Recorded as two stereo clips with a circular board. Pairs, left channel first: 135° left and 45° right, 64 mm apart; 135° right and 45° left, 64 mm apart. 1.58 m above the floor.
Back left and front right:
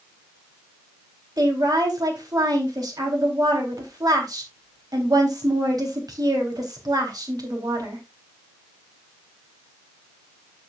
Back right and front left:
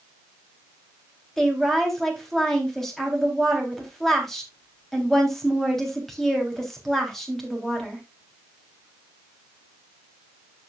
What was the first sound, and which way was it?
A woman speaking, 50° right.